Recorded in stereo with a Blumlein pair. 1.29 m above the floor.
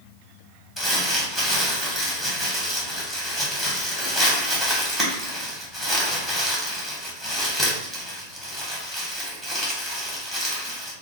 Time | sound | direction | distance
0.8 | crumpling | straight ahead | 1.0 m